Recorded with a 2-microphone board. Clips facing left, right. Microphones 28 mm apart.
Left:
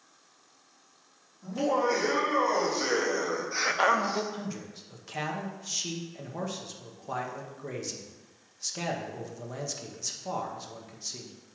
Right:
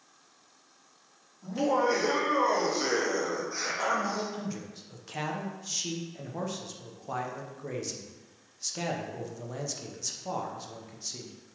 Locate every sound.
1.4 s laughter: 10° right (ahead or behind), 3 m; by 4.2 s 65° left (ahead or behind), 0.8 m
4.3 s a man speaking: 5° left (ahead or behind), 0.9 m